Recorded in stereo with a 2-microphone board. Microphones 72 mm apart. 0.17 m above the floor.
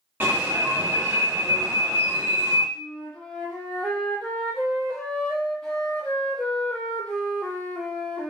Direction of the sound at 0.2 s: 30° right (ahead or behind).